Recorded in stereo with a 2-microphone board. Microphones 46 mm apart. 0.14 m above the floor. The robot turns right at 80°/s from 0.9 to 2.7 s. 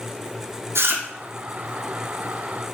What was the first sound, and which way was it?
Chewing, 60° right (ahead or behind).